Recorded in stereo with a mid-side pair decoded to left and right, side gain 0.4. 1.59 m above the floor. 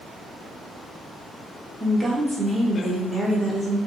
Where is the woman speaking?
5° right, 1.0 m.